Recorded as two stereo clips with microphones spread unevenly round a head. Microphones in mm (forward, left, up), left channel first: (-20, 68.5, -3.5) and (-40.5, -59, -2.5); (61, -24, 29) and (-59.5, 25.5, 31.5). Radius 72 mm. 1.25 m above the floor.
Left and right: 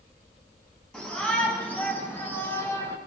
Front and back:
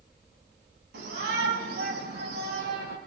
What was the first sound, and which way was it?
A shout, 165° left.